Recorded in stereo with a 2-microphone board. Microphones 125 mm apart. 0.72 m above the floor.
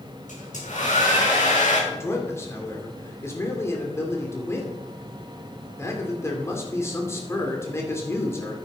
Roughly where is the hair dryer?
Left.